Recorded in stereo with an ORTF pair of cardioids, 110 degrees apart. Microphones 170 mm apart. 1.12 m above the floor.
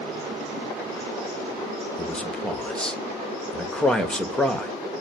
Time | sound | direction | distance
2.0 | a man speaking | 5° left | 1.0 m